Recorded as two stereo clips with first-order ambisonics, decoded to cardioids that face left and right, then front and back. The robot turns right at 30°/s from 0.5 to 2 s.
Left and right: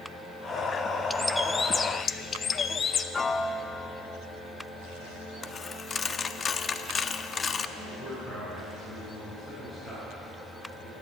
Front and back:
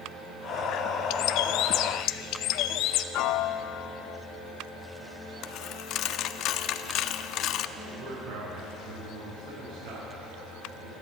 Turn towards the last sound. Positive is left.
turn(degrees=160)